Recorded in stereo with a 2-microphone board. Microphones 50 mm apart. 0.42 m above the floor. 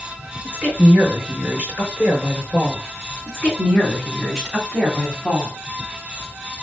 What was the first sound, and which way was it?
A woman speaking, 25° right (ahead or behind).